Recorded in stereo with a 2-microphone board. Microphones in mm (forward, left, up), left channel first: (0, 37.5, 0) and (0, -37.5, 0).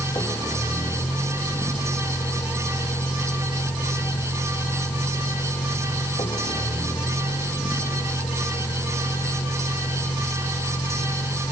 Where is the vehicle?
55° left (ahead or behind); by 11.5 s 85° left.